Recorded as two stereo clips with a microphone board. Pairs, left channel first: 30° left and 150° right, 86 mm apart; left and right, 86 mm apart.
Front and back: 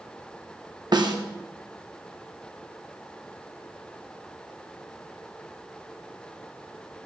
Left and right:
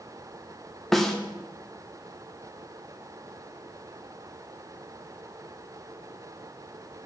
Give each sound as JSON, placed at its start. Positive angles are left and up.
{"t": 0.9, "sound": "a snare drum", "azimuth_deg": 175, "distance_m": 1.2}